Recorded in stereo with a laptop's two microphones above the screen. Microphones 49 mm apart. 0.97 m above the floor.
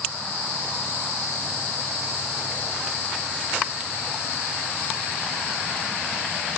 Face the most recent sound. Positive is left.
No sound to turn to.